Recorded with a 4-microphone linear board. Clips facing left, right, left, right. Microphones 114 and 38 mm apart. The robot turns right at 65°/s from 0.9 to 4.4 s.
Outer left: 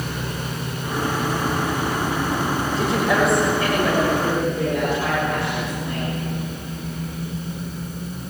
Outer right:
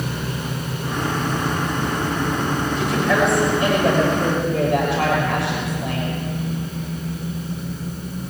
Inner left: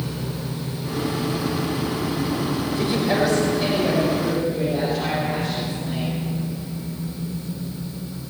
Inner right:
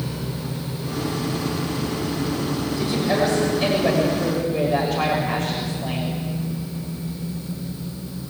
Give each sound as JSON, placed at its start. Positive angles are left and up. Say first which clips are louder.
{"t": 2.8, "sound": "a woman speaking", "louder": "even, even", "azimuth_deg": 145, "distance_m": 6.5}